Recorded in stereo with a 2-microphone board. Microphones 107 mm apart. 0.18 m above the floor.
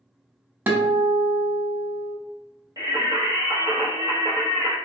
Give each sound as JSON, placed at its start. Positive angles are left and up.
{"t": 0.7, "sound": "a guitar", "side_deg": -20, "distance_m": 0.6}
{"t": 2.8, "sound": "singing", "side_deg": -35, "distance_m": 1.0}